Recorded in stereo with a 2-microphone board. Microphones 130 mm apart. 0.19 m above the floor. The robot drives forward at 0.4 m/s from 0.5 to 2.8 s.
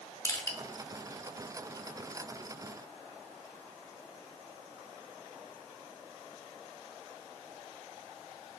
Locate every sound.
0.2 s crushing: 25° left (ahead or behind), 0.6 m